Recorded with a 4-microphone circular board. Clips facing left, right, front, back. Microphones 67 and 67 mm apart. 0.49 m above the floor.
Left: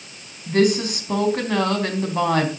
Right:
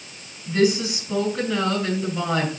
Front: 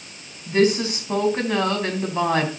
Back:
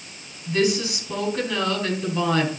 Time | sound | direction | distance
0.5 | a woman speaking | 55° left | 3.5 m